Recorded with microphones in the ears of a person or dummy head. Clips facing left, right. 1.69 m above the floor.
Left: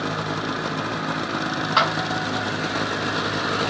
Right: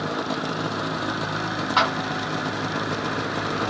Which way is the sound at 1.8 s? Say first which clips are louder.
Even; 5° left (ahead or behind).